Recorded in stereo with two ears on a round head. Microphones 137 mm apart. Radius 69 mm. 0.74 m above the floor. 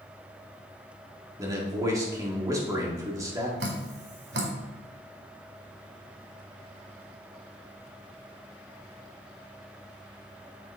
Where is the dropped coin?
I don't hear a dropped coin.